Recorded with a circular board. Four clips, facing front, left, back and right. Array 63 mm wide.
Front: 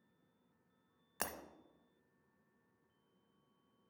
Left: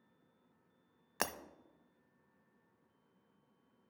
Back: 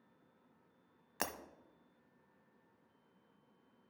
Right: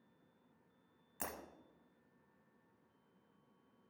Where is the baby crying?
No baby crying in this recording.